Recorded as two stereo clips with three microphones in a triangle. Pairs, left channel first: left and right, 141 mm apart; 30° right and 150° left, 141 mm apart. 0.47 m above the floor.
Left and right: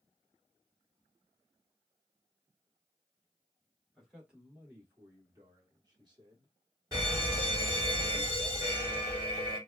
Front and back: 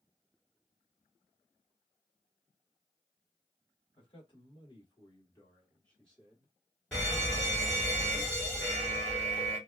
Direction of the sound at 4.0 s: 5° right.